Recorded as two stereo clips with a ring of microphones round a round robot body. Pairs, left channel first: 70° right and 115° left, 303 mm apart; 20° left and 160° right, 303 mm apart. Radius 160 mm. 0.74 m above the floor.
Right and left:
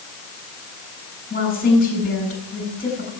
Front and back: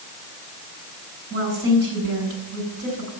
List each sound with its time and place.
1.3 s a woman speaking: 130° right, 8 m